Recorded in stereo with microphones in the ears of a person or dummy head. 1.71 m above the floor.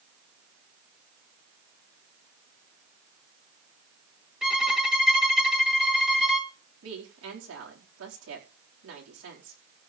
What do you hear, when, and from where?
4.4 s a violin: centre (ahead or behind), 1.8 m
6.8 s a woman speaking: 85° right, 4.5 m